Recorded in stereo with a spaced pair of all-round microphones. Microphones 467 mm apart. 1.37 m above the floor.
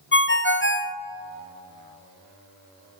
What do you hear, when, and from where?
0.1 s a ringtone: 25° left (ahead or behind), 0.6 m